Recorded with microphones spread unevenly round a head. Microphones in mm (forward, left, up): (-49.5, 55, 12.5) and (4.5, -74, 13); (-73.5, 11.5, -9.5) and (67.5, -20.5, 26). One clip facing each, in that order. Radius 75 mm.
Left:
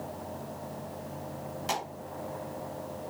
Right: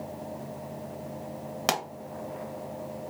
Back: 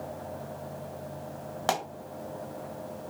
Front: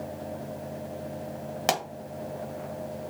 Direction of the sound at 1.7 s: 75° right.